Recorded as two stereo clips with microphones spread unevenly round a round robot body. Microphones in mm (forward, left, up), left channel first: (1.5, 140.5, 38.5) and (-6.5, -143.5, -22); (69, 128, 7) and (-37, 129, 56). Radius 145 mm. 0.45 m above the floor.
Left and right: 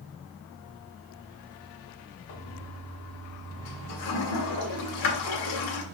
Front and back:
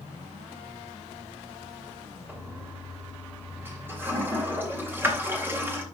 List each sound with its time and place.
2.3 s a toilet flushing: 95° left, 2.5 m